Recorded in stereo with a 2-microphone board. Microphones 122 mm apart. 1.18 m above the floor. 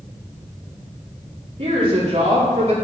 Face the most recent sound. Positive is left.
turn(degrees=-60)  # may be behind; listen again after turning